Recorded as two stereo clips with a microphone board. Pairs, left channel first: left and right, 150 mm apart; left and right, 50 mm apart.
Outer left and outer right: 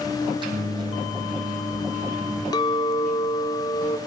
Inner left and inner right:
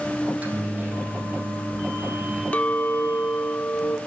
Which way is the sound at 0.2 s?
30° right (ahead or behind).